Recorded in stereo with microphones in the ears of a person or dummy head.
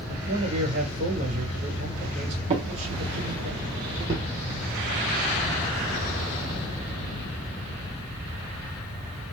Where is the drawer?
30° right (ahead or behind), 1.3 m.